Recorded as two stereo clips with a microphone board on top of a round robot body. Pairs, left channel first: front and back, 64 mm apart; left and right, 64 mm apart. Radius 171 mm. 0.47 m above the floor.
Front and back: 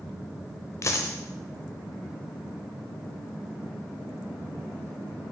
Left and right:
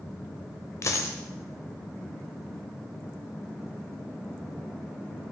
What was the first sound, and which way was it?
A dropped coin, 45° left.